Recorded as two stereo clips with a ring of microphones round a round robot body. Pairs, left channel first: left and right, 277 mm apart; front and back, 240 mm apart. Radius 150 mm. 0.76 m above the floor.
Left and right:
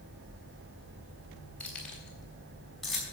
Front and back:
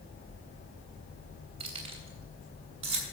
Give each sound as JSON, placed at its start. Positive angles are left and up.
{"t": 1.6, "sound": "keys jangling", "azimuth_deg": 175, "distance_m": 3.5}